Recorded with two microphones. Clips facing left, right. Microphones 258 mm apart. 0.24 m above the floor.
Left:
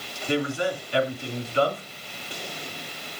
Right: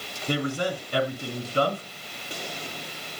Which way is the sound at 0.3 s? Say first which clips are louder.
Left 2 dB; 45° right (ahead or behind).